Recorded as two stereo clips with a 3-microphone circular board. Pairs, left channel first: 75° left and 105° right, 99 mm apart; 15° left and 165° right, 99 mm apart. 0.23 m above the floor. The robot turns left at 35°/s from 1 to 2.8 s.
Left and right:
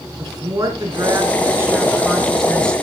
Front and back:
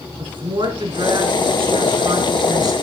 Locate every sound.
0.2 s a woman speaking: 150° right, 2.5 m; by 2.7 s 150° left, 2.5 m